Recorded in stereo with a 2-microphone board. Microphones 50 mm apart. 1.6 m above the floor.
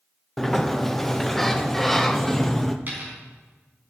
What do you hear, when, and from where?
0.4 s a sliding door: 5° left (ahead or behind), 0.8 m
2.9 s a dropped coin: 35° right (ahead or behind), 4.5 m